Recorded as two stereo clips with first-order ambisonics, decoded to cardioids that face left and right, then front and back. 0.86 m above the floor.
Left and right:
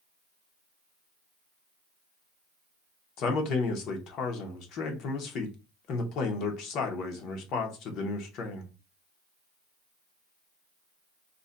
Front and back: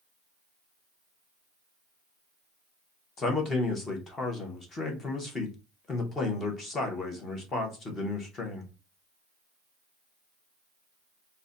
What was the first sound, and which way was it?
A man speaking, 60° left.